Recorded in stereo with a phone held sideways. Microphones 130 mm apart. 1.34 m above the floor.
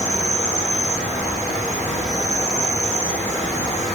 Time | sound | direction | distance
0.0 | an insect | 65° left (ahead or behind) | 1.4 m